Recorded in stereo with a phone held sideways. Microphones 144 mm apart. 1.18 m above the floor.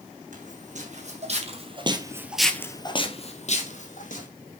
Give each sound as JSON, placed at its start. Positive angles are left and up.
{"t": 0.3, "sound": "footsteps", "side_deg": -60, "distance_m": 3.5}